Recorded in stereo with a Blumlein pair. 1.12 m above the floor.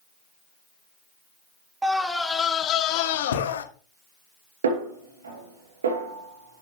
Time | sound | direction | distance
1.8 | a scream | 10° right | 1.3 m
4.6 | a snare drum | 65° right | 3.5 m